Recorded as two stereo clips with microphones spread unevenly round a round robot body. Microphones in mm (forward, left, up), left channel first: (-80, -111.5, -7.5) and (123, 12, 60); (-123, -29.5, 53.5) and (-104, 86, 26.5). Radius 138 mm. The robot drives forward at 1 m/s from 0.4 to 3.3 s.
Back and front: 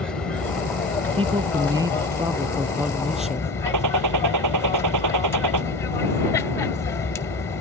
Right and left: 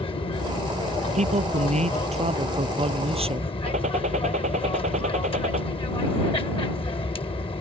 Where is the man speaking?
105° left; by 3.5 s 120° left.